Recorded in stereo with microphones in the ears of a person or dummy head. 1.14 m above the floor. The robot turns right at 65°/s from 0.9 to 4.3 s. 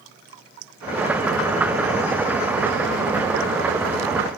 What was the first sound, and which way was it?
Only background noise.